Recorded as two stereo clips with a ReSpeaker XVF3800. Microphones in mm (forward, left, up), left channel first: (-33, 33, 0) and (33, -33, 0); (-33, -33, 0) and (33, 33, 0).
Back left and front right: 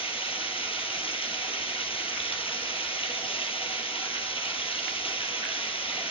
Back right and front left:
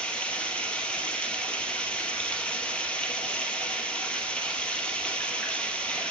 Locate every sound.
0.0 s running water: 145° left, 1.0 m